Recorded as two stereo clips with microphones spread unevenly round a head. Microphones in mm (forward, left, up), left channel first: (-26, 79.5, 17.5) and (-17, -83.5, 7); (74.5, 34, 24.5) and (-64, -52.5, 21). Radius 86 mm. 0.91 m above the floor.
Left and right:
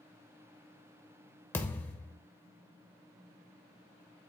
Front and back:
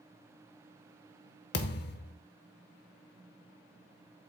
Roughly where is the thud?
Ahead.